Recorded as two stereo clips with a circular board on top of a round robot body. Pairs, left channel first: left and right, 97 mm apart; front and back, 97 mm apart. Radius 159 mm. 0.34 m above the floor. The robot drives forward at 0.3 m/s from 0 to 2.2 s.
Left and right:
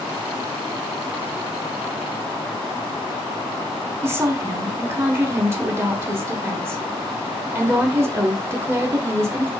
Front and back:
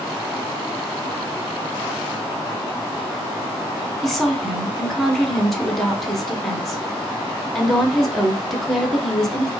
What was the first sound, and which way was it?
A woman speaking, 85° right.